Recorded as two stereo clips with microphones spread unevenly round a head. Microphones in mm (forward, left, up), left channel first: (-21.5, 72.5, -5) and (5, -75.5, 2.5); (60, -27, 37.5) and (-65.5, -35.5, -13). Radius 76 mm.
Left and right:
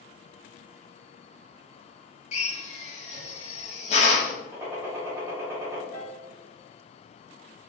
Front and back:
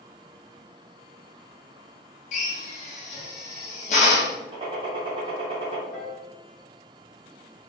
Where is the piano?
45° left, 1.9 m.